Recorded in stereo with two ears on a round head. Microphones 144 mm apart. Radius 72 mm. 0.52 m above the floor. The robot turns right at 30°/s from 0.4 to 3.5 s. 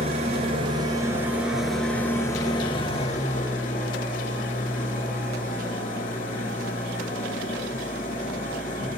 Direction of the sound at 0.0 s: 40° right.